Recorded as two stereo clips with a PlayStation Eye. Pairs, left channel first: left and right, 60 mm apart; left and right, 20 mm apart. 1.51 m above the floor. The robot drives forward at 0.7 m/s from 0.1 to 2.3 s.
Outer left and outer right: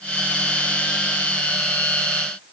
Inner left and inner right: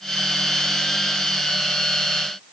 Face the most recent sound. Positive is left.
No sound to turn to.